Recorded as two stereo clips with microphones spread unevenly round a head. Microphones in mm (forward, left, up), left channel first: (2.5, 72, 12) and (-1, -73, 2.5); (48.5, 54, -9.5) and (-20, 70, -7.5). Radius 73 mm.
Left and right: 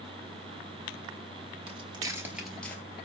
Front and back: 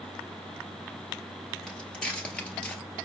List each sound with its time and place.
1.7 s footsteps: 95° right, 1.3 m; by 2.8 s 40° left, 1.2 m